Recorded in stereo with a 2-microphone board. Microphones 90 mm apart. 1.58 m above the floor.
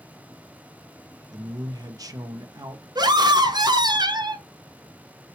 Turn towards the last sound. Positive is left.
turn(degrees=-50)  # may be behind; listen again after turning